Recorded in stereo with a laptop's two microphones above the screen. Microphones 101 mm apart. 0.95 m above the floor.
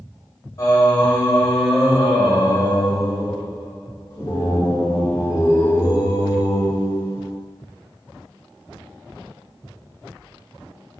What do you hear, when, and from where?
0.6 s singing: 35° left (ahead or behind), 1.2 m